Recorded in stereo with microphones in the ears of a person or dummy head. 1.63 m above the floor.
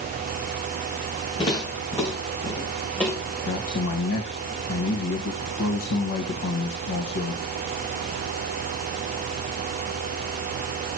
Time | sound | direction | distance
1.4 | footsteps | 25° left (ahead or behind) | 4.5 m
3.5 | a man speaking | 65° left (ahead or behind) | 1.9 m